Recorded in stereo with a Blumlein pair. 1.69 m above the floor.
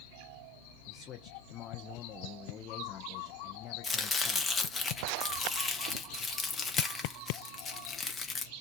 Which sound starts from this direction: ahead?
Chopping, at 3.8 s.